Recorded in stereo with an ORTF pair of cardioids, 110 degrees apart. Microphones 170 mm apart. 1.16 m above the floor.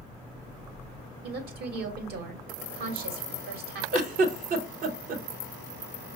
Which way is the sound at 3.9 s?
55° right.